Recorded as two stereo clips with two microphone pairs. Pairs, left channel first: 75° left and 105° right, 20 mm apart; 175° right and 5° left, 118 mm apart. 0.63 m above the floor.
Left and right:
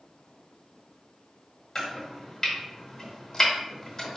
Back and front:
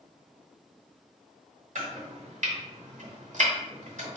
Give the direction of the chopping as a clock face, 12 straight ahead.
12 o'clock.